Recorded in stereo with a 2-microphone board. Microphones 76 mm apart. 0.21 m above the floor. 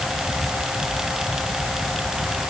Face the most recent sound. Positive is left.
No sound to turn to.